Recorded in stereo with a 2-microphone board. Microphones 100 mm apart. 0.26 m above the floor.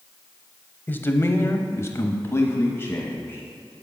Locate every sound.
0.9 s a man speaking: 20° left (ahead or behind), 1.1 m